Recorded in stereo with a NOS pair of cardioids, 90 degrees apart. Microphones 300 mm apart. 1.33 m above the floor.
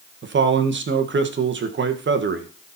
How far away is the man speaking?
About 1.5 m.